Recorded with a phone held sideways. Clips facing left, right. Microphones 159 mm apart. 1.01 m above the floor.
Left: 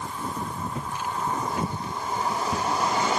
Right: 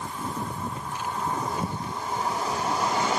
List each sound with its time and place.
0.7 s footsteps: 70° left (ahead or behind), 3.5 m; by 3.1 s 75° left (ahead or behind), 5 m